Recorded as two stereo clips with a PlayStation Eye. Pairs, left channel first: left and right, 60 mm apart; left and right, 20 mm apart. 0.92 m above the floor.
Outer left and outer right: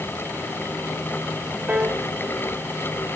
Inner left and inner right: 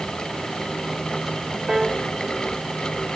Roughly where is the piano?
Right.